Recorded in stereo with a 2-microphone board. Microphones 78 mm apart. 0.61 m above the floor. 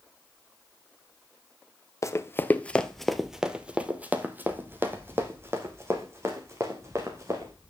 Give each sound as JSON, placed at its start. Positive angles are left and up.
{"t": 2.0, "sound": "running footsteps", "side_deg": 45, "distance_m": 0.8}